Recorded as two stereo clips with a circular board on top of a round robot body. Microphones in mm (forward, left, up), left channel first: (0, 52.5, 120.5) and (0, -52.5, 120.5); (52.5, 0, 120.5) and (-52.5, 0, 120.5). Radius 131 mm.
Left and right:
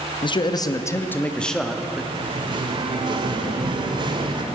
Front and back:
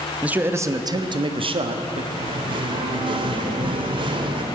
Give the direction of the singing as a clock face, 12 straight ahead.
5 o'clock.